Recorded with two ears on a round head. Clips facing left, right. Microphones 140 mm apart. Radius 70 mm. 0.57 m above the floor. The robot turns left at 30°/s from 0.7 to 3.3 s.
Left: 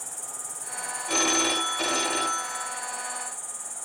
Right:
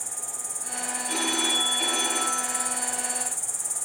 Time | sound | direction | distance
0.0 | an insect | 15° right | 0.8 m
1.1 | a phone ringing | 75° left | 1.3 m